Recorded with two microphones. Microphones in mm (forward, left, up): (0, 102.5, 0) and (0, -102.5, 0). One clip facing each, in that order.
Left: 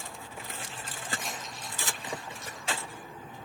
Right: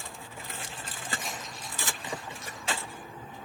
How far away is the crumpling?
About 7.5 m.